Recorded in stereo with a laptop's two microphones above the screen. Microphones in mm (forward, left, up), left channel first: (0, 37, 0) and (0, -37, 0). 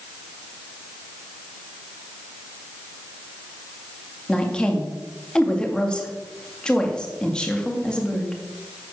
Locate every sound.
4.3 s a woman speaking: 10° left (ahead or behind), 1.8 m